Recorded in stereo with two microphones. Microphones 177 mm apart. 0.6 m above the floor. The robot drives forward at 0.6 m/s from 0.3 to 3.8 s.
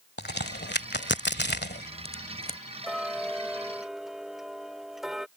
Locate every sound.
0.2 s a crack: 70° left (ahead or behind); by 2.6 s 55° left (ahead or behind)
2.8 s ticking: centre (ahead or behind)